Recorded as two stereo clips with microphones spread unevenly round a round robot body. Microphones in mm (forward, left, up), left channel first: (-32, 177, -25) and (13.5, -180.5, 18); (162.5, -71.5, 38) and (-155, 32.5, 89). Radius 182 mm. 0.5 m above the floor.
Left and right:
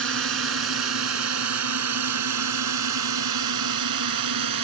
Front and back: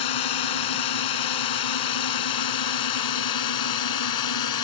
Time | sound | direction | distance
0.0 | a drone | 25° right | ?